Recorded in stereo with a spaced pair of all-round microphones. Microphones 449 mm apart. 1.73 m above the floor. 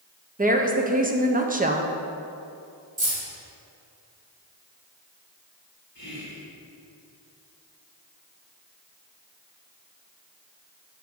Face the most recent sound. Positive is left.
turn(degrees=60)  # may be behind; listen again after turning